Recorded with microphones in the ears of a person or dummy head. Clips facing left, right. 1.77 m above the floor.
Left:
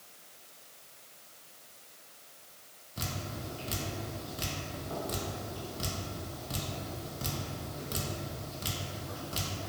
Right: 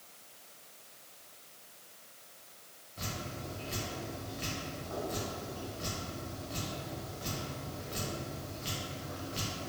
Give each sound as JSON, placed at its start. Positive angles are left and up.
{"t": 3.0, "sound": "dripping", "side_deg": 55, "distance_m": 0.8}